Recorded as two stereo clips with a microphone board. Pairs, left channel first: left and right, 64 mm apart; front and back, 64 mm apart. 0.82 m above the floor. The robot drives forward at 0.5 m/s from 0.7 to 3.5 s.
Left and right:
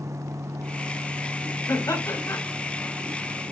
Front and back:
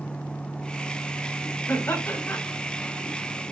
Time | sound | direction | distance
1.7 | laughter | 55° left | 3.5 m